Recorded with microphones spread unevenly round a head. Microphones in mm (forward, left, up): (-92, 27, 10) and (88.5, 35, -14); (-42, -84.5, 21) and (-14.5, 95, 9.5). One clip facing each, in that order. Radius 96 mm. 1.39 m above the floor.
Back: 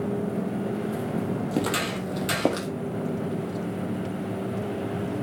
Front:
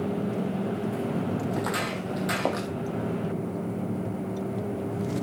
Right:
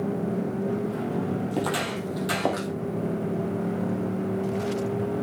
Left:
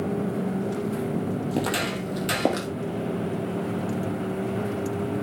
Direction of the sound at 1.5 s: 145° left.